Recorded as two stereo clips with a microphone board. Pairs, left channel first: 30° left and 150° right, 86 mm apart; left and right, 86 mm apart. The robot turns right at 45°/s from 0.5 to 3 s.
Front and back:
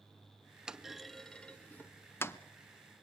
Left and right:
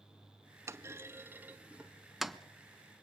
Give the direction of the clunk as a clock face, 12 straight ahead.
2 o'clock.